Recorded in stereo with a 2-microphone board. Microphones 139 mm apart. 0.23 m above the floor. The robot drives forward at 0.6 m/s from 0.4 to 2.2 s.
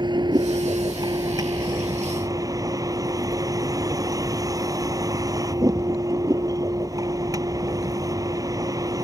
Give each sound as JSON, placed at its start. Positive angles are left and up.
{"t": 0.0, "sound": "a vehicle", "side_deg": -35}